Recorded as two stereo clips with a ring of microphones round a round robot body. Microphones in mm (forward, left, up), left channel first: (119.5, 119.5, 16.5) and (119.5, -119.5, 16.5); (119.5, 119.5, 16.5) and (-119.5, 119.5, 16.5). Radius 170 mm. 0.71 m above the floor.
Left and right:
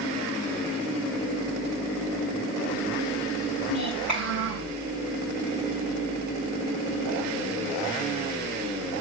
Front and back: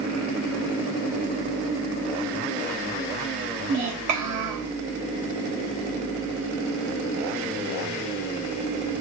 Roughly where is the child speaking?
Behind.